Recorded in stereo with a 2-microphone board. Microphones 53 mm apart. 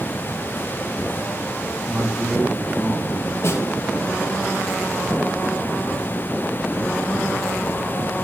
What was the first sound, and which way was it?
A man speaking, 25° right (ahead or behind).